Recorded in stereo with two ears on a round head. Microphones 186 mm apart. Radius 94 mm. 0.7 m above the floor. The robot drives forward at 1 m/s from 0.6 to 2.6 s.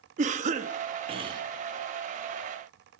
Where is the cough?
35° right (ahead or behind), 0.8 m; by 1.4 s 20° right (ahead or behind), 1.3 m.